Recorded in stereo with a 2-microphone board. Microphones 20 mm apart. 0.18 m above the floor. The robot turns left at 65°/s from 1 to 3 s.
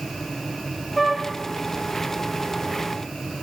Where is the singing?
No singing in this recording.